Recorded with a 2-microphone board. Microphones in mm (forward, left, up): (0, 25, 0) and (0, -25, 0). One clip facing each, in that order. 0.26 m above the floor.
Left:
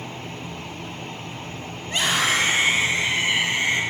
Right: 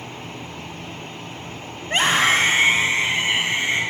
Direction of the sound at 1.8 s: 45° right (ahead or behind).